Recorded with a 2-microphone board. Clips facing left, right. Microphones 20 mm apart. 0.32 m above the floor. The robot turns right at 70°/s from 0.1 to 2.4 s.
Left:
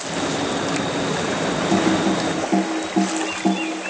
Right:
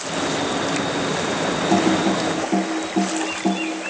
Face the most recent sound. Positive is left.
turn(degrees=5)  # may be behind; listen again after turning